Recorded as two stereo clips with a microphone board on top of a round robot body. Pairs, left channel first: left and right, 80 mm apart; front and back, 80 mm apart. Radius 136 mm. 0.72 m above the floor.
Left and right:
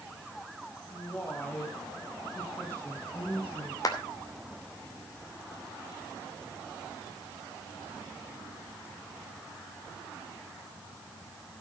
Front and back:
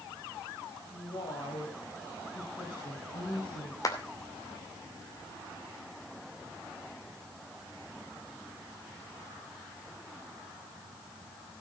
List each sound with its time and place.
0.9 s a woman speaking: 10° left, 4 m
3.8 s a clap: 45° left, 2.5 m